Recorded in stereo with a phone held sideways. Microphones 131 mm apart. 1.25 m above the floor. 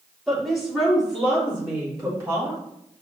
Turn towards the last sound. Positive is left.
turn(degrees=-20)  # may be behind; listen again after turning